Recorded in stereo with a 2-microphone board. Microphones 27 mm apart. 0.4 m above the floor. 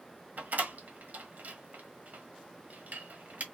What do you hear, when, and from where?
0.4 s a door slam: 65° right (ahead or behind), 1.2 m